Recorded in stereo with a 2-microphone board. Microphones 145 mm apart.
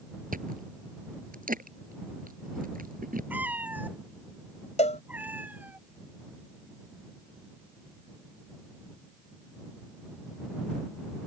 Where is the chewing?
75° right (ahead or behind).